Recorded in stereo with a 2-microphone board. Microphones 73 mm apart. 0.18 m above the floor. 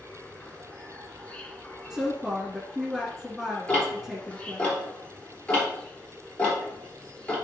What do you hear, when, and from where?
0.0 s an insect: 15° left (ahead or behind), 1.0 m
1.9 s a woman speaking: centre (ahead or behind), 2.5 m
3.7 s ticking: 20° left (ahead or behind), 3.5 m